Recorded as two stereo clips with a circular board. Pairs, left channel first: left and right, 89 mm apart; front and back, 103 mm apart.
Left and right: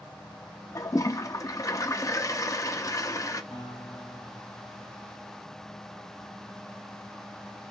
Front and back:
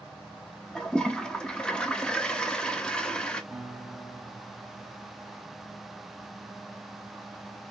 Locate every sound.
0.8 s a toilet flushing: 75° left, 0.6 m
3.5 s a guitar: 90° left, 1.8 m